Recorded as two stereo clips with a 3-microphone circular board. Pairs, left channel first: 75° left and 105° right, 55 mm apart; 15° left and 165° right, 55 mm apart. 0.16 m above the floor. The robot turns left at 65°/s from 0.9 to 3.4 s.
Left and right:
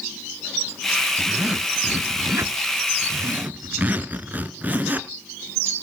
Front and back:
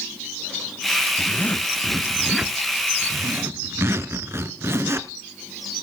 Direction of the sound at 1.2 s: 10° right.